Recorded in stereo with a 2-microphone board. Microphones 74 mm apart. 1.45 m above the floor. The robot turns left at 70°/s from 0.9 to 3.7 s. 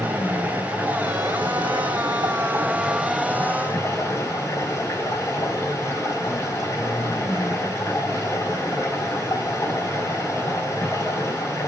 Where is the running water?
30° right, 3.5 m; by 11.7 s 135° left, 3.5 m.